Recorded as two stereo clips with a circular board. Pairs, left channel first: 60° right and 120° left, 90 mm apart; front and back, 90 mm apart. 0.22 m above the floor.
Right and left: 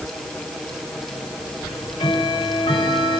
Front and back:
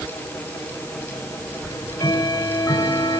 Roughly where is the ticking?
Ahead right.